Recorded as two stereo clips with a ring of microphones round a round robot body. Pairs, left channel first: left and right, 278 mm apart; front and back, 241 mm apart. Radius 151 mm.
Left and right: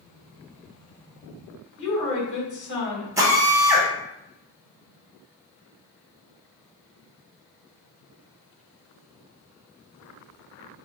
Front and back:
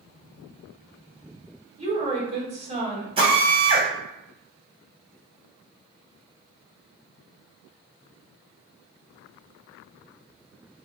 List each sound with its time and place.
1.8 s a woman speaking: 120° left, 1.7 m
3.2 s a drill: 155° right, 1.0 m